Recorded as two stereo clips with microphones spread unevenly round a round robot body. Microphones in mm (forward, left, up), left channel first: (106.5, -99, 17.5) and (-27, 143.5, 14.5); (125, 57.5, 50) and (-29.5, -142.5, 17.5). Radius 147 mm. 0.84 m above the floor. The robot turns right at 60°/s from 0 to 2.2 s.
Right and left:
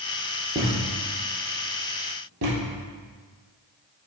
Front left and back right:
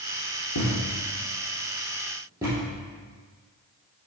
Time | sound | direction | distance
0.6 | a thud | 50° left | 2.5 m